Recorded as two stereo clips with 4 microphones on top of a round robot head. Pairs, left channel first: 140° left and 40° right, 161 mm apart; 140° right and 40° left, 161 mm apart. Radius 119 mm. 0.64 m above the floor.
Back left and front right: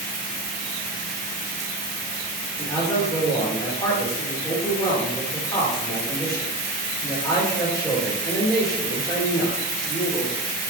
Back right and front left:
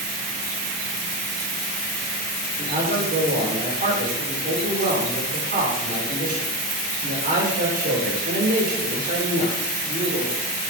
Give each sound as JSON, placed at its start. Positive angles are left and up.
{"t": 2.6, "sound": "a man speaking", "azimuth_deg": 70, "distance_m": 2.0}